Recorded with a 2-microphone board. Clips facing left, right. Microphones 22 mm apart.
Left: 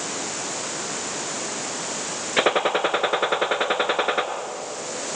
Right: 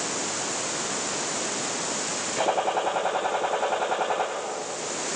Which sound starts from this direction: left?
A gunshot, at 2.4 s.